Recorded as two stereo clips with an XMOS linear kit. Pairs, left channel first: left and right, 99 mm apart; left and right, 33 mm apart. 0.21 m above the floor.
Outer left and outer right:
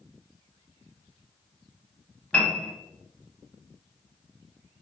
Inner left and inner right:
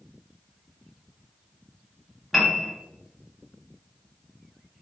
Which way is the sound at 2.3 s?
10° left (ahead or behind).